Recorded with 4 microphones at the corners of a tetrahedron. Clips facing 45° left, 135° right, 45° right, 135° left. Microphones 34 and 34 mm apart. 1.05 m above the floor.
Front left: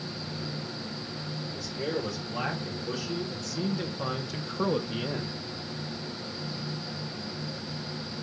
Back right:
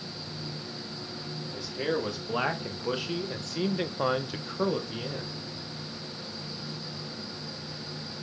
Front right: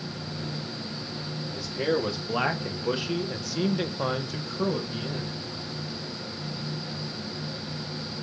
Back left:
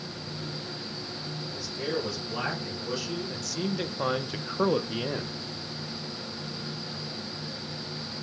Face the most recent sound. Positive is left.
turn(degrees=115)